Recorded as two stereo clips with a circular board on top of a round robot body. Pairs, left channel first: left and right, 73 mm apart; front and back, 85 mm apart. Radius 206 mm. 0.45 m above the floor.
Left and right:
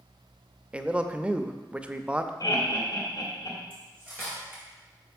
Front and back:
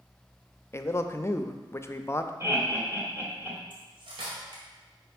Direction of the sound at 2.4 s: 120° left.